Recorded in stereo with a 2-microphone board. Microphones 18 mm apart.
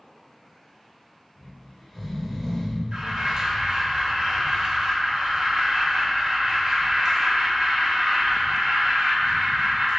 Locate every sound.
1.4 s snoring: 20° left (ahead or behind), 1.1 m
2.9 s an alarm: 45° right (ahead or behind), 1.0 m